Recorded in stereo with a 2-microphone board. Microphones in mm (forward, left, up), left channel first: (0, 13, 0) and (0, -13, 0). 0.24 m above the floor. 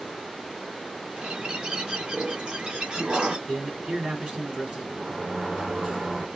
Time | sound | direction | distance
1.2 | a bird | 40° right (ahead or behind) | 1.4 m
3.5 | a man speaking | 40° right (ahead or behind) | 2 m
5.0 | a sliding door | 35° right (ahead or behind) | 1.3 m